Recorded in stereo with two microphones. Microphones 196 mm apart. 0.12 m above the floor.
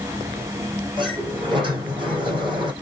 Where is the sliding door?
25° right (ahead or behind), 4 m.